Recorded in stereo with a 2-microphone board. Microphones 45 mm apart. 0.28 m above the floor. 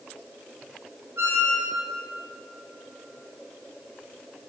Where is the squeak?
60° right (ahead or behind), 1.0 m.